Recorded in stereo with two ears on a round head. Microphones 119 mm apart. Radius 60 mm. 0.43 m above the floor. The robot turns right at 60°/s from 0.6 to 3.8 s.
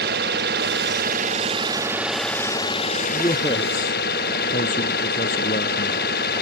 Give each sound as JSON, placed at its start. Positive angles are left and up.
{"t": 0.0, "sound": "an engine running", "azimuth_deg": -95}
{"t": 3.1, "sound": "a man speaking", "azimuth_deg": 20}